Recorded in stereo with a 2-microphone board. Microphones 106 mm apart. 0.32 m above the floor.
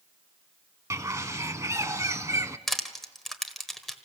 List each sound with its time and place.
0.9 s a bird: 30° right (ahead or behind), 0.7 m
2.7 s crushing: centre (ahead or behind), 1.3 m